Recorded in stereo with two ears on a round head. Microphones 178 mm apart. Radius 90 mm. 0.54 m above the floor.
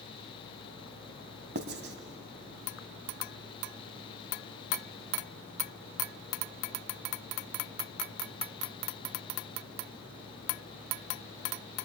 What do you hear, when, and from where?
1.6 s writing: 55° right (ahead or behind), 1.1 m